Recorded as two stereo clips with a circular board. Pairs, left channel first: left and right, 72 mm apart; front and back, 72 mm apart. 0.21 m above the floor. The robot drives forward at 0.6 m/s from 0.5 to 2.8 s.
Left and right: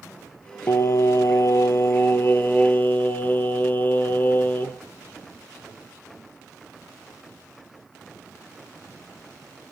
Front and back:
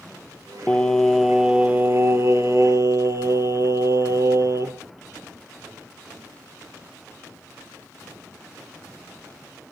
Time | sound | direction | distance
0.7 | singing | 65° left | 0.9 m